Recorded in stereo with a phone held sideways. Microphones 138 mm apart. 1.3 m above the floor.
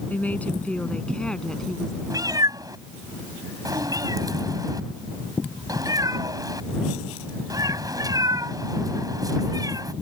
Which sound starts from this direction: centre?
A woman speaking, at 0.1 s.